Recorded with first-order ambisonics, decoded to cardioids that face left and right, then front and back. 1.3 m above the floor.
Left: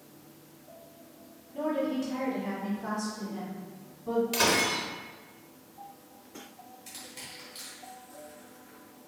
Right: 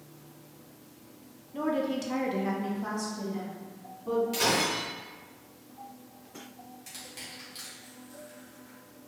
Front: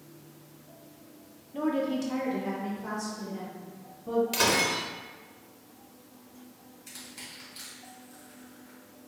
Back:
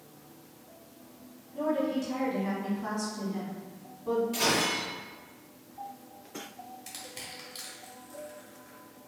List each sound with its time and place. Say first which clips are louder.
1.5 s a woman speaking: even, even; 40° right, 1.0 m; by 4.2 s 145° right, 2.5 m
4.3 s breaking glass: left 4 dB, front 4 dB; 25° left, 0.9 m
6.9 s crushing: right 1 dB, front 1 dB; 165° right, 1.4 m